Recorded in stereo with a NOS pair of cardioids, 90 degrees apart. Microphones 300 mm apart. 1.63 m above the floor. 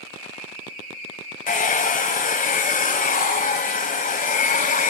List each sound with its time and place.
1.5 s a hair dryer: 25° left, 1.2 m